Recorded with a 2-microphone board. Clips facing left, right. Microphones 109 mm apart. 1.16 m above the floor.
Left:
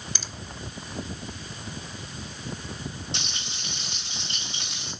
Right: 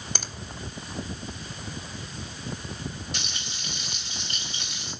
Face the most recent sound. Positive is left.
turn(degrees=25)  # may be behind; listen again after turning